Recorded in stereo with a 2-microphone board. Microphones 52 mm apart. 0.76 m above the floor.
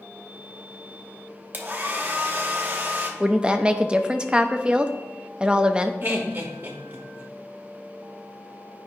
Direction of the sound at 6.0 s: 35° right (ahead or behind).